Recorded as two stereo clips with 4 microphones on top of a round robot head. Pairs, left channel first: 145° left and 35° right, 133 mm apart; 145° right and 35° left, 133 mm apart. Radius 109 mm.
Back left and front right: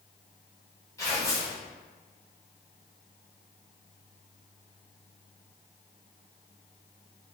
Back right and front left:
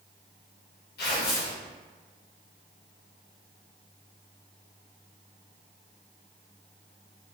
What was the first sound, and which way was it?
Tearing paper, 145° right.